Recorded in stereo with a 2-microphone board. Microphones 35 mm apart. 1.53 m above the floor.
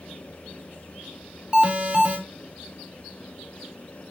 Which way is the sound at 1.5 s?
25° right (ahead or behind).